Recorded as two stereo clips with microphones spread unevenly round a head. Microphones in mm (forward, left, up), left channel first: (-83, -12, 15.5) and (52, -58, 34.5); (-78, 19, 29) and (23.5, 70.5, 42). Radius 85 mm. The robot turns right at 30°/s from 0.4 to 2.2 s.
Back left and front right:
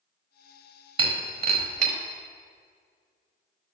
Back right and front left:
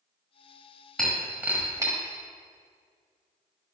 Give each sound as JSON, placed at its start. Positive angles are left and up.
{"t": 1.0, "sound": "breaking glass", "azimuth_deg": -60, "distance_m": 1.2}